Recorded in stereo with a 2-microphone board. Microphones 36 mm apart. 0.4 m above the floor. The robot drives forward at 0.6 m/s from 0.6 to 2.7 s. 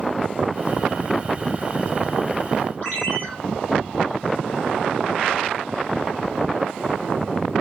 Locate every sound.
2.8 s a ringtone: 40° left (ahead or behind), 6.5 m